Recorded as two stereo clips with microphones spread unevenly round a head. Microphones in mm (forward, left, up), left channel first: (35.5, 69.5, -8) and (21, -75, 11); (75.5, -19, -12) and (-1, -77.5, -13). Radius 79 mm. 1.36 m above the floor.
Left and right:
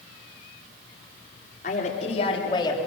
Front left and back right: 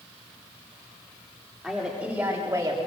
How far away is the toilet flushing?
No toilet flushing in this recording.